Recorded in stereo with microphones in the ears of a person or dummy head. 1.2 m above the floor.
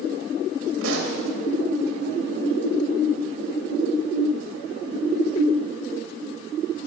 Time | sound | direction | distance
0.8 | a pop | 65° right (ahead or behind) | 2 m